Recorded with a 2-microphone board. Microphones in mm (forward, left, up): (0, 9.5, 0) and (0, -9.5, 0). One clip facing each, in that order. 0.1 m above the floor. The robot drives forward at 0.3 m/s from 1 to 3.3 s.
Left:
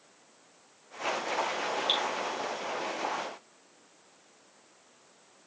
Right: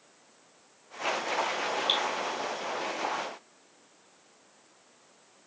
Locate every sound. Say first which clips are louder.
1.9 s dripping: right 1 dB; 10° right (ahead or behind), 5 m